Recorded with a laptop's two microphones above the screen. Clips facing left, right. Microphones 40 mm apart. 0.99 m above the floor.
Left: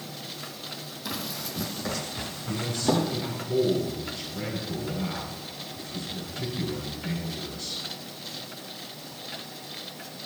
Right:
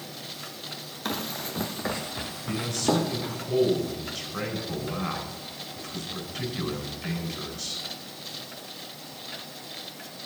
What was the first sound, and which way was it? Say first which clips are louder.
Running footsteps: right 3 dB; 50° right (ahead or behind).